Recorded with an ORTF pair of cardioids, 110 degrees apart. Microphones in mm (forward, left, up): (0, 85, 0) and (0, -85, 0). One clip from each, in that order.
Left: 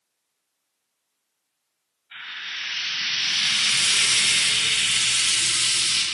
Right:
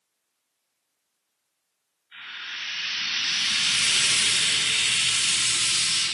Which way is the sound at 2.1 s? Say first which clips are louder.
Left 3 dB; 70° left.